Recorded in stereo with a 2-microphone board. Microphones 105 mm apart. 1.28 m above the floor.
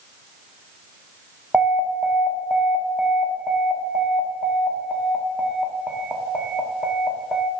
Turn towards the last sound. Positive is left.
turn(degrees=-5)  # may be behind; listen again after turning